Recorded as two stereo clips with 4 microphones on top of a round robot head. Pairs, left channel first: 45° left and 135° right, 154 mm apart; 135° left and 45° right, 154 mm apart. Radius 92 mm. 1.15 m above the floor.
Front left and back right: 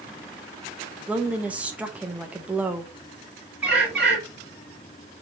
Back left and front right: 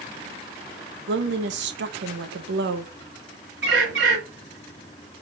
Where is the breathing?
No breathing in this recording.